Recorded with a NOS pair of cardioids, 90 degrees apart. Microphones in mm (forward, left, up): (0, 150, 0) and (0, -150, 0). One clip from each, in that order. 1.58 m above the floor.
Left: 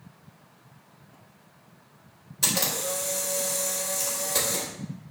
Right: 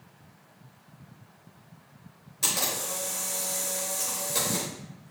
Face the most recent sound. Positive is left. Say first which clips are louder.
# left 2 dB
turn(degrees=25)